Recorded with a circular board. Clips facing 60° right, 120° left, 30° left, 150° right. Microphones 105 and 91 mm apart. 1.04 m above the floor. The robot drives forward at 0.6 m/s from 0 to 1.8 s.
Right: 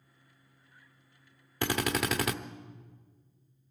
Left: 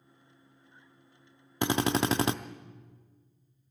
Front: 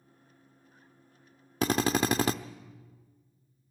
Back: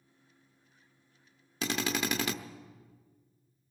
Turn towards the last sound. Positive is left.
turn(degrees=65)